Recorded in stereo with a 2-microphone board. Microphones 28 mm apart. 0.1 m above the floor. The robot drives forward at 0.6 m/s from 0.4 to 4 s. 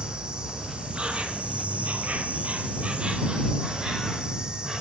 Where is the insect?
35° right (ahead or behind), 1.2 m; by 4.8 s 30° right (ahead or behind), 1.4 m.